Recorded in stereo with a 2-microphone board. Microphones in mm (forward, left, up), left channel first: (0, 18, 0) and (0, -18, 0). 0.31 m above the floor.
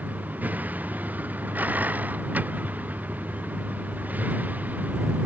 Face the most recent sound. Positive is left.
turn(degrees=-50)  # may be behind; listen again after turning